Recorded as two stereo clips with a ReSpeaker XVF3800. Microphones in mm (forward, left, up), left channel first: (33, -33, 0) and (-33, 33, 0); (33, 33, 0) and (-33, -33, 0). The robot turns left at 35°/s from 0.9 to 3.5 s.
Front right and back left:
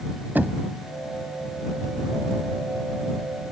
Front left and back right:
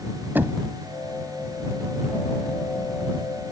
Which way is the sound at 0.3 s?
Straight behind.